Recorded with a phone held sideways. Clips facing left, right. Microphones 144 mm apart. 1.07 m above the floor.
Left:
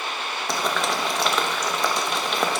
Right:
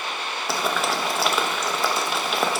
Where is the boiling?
5° right (ahead or behind), 1.4 m.